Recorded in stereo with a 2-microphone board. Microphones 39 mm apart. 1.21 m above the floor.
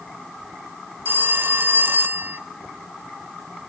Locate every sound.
1.1 s a phone ringing: 55° right (ahead or behind), 0.8 m